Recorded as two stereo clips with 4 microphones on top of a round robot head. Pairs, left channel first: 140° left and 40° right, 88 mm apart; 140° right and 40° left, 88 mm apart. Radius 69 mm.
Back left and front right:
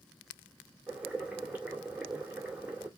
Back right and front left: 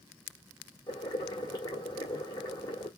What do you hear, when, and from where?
0.9 s boiling: 115° right, 2 m